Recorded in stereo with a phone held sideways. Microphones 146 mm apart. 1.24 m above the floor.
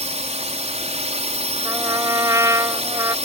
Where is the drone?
50° right (ahead or behind).